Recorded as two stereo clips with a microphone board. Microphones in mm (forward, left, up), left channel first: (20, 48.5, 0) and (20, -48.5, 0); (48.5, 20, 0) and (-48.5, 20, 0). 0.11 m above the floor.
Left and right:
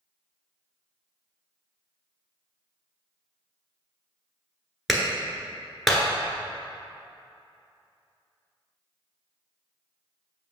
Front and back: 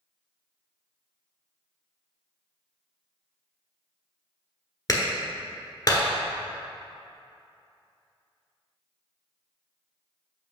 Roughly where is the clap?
Ahead.